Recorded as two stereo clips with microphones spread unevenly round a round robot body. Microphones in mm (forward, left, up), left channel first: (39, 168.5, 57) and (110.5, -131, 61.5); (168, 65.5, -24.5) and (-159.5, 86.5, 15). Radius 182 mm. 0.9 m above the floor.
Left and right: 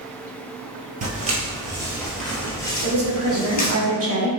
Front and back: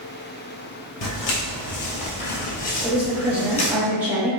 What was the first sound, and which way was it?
Footsteps, 20° right.